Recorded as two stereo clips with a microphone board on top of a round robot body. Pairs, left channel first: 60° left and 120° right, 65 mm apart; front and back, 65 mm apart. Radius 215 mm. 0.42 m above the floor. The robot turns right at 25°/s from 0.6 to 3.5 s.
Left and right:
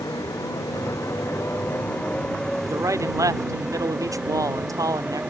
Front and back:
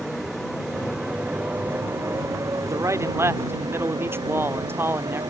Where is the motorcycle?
90° left; by 5.3 s 160° left.